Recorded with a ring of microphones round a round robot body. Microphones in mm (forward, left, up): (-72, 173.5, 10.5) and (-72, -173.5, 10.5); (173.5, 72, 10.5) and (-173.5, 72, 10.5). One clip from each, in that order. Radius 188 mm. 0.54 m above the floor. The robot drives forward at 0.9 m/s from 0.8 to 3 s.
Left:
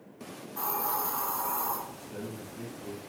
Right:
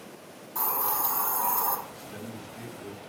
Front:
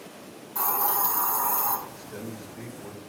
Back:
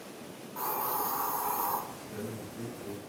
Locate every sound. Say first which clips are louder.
0.6 s a hiss: right 2 dB, front 5 dB; 45° right, 4 m; by 1.8 s 55° right, 3.5 m
1.9 s a man speaking: even, front 1 dB; 55° right, 3.5 m; by 3.0 s 70° right, 3.5 m